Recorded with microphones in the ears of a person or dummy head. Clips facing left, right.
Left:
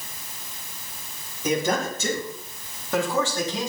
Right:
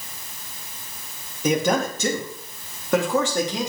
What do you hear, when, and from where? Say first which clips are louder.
1.4 s a man speaking: right 3 dB; 55° right (ahead or behind), 3.5 m; by 3.7 s 50° right (ahead or behind), 5 m